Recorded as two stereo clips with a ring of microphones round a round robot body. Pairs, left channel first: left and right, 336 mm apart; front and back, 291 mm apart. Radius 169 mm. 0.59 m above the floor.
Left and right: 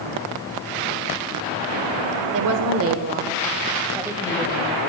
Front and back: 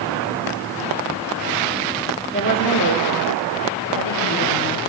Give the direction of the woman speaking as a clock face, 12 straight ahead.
2 o'clock.